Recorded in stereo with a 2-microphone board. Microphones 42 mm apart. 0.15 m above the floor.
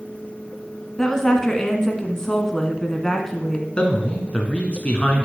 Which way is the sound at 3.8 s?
25° left (ahead or behind).